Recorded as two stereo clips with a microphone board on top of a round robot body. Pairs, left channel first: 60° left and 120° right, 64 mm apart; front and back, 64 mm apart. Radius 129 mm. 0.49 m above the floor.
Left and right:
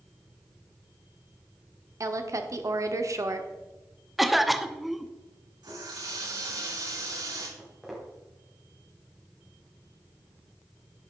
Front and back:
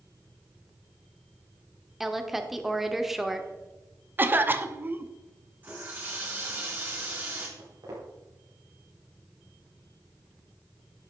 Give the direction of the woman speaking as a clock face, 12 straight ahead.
3 o'clock.